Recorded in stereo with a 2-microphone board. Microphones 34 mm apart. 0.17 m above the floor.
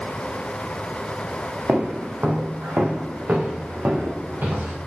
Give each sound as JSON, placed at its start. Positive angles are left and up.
{"t": 1.7, "sound": "footsteps", "side_deg": -60, "distance_m": 1.7}